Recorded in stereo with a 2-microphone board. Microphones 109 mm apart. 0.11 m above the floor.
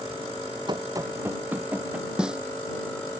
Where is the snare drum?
10° right (ahead or behind).